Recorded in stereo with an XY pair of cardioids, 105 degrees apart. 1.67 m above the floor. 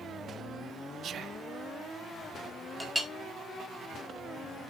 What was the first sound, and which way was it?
Whispering, 55° right.